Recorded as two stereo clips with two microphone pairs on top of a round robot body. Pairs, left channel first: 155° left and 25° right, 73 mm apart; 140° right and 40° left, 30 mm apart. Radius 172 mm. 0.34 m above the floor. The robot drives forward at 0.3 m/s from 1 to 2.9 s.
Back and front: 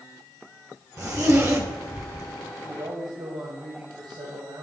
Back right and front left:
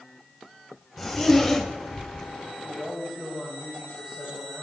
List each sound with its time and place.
1.0 s a zipper: 55° right, 2.5 m; by 2.3 s 65° right, 2.5 m
2.6 s a man speaking: 30° right, 2.5 m